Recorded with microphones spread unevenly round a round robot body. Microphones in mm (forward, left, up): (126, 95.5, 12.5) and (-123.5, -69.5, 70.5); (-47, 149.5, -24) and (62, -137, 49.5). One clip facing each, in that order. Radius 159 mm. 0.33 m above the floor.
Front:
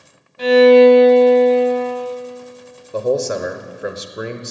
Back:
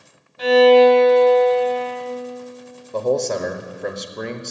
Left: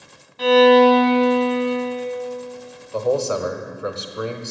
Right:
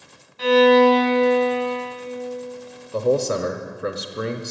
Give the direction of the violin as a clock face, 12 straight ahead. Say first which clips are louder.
Front 3 dB, left 2 dB; 9 o'clock.